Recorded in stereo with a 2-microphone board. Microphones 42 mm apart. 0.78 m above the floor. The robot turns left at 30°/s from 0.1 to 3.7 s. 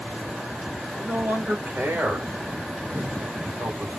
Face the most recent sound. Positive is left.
turn(degrees=-35)  # may be behind; listen again after turning